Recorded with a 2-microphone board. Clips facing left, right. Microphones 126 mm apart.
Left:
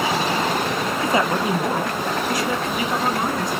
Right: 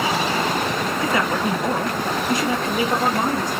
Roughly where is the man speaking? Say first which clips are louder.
Left 2 dB; left.